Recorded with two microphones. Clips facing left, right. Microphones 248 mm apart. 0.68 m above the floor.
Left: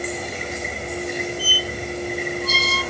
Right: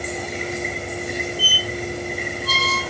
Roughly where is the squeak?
Right.